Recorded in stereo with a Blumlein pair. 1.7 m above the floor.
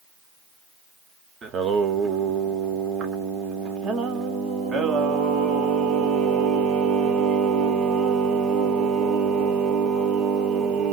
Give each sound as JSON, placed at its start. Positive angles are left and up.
{"t": 1.4, "sound": "singing", "azimuth_deg": -25, "distance_m": 0.7}